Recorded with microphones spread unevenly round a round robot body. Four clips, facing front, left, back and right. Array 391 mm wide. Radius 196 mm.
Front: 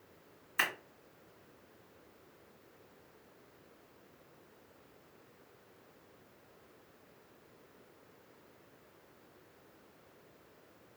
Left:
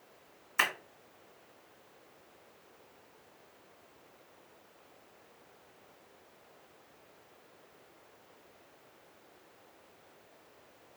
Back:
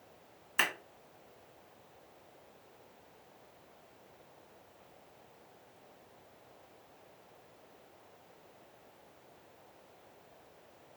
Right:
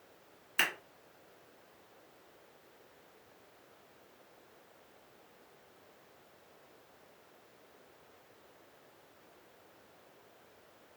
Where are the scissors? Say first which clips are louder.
Left 3 dB, back 2 dB; 175° right, 1.6 m.